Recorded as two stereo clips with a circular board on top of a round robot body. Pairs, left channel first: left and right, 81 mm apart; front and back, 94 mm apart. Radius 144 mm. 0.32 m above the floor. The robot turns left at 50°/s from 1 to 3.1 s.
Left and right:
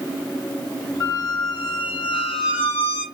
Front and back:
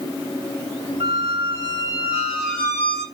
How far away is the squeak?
About 0.6 m.